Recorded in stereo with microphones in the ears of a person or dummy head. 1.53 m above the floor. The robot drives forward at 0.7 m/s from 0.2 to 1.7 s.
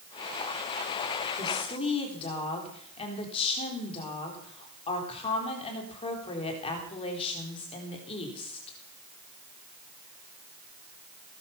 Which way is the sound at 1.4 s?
30° left (ahead or behind).